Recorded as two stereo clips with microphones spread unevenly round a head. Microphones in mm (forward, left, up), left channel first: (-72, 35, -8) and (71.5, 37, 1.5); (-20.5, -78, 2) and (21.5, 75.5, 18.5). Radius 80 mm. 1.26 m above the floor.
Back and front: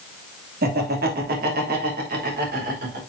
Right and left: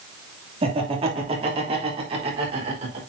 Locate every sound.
0.6 s laughter: 15° left, 2.5 m; by 3.0 s 20° left, 4.5 m